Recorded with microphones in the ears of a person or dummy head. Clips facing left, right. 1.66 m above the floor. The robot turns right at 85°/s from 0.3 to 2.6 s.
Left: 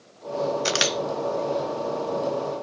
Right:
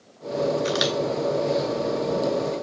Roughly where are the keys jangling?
I don't hear keys jangling.